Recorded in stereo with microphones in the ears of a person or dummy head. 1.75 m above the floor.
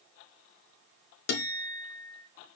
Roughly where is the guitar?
Left.